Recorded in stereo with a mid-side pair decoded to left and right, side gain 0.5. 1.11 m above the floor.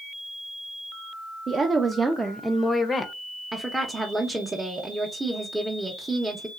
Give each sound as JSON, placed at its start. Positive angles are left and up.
{"t": 1.5, "sound": "a woman speaking", "azimuth_deg": -50, "distance_m": 0.7}
{"t": 3.5, "sound": "a woman speaking", "azimuth_deg": -15, "distance_m": 0.7}